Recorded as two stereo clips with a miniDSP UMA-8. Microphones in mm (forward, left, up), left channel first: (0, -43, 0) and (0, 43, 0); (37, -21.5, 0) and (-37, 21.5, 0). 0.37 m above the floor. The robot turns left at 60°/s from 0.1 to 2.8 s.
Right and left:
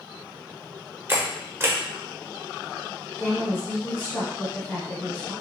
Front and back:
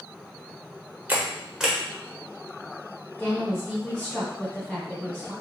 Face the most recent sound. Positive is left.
turn(degrees=-95)